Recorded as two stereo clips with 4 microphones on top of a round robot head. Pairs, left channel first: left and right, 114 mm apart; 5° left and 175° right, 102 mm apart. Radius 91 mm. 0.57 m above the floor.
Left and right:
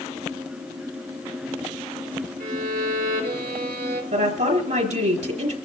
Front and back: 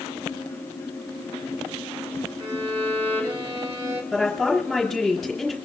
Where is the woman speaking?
85° right, 4 m.